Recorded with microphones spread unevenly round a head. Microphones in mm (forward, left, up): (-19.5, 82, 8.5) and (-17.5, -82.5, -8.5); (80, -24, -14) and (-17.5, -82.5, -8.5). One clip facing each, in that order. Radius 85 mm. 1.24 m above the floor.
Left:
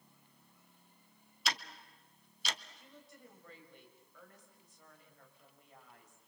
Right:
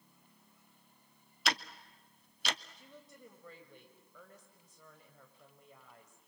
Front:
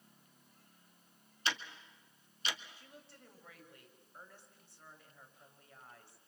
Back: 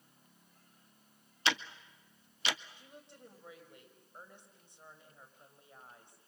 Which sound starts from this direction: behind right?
Ticking, at 1.4 s.